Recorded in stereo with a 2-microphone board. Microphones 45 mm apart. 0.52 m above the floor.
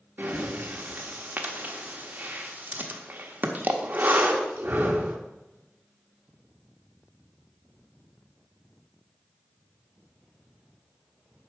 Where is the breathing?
40° right (ahead or behind), 1.0 m.